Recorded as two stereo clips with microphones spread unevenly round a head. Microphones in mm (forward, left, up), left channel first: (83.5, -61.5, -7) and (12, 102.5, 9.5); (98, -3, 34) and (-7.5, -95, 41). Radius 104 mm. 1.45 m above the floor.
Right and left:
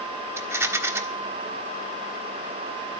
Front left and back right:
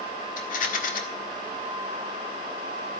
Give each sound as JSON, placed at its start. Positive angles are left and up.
{"t": 0.4, "sound": "a rattle", "azimuth_deg": 45, "distance_m": 1.5}